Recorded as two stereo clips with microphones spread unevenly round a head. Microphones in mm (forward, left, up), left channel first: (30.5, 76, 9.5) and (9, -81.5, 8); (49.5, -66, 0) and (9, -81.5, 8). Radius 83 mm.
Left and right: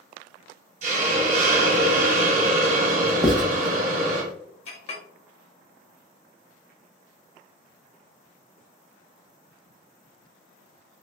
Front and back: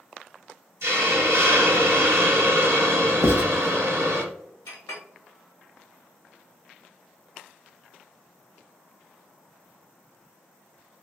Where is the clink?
35° left, 0.8 m.